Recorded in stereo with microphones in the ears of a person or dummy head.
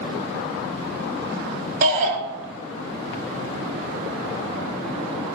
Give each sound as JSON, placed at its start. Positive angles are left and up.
{"t": 1.8, "sound": "a shout", "side_deg": -60, "distance_m": 2.0}